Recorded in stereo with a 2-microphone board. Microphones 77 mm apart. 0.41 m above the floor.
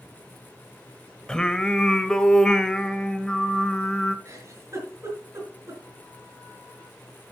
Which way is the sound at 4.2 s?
40° right (ahead or behind).